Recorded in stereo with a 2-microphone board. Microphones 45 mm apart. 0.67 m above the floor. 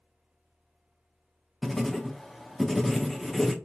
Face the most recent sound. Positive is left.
turn(degrees=5)  # may be behind; listen again after turning